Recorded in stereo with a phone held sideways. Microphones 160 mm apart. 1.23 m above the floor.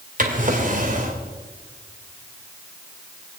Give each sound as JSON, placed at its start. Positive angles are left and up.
{"t": 0.2, "sound": "a drawer", "side_deg": -55, "distance_m": 2.0}